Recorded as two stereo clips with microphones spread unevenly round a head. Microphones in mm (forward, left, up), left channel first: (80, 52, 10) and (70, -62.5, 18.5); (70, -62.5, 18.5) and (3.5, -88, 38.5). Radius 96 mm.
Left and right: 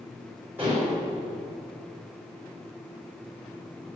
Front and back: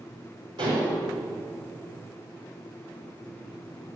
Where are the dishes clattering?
175° right, 4.5 m.